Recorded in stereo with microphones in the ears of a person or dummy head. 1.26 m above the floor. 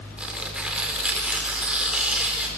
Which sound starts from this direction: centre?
Tearing paper, at 0.2 s.